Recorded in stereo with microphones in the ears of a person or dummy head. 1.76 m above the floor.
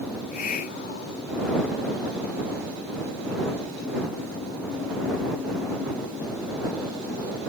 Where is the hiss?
55° left (ahead or behind).